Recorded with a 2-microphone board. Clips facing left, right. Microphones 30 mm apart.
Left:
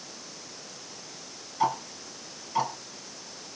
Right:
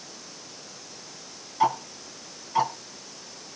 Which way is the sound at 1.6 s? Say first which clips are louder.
Right 3 dB; 15° right (ahead or behind).